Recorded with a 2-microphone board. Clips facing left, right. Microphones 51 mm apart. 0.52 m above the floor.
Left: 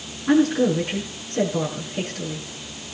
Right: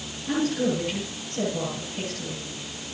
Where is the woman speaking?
55° left (ahead or behind), 6 m.